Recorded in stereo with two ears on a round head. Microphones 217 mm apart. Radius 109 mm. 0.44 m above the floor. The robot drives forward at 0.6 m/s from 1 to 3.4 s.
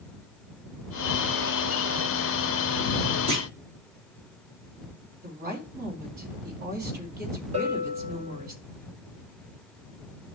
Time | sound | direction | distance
3.3 | a clunk | 25° right (ahead or behind) | 2.5 m
5.2 | a woman speaking | 40° right (ahead or behind) | 4.5 m
7.5 | a bell | 30° right (ahead or behind) | 3.5 m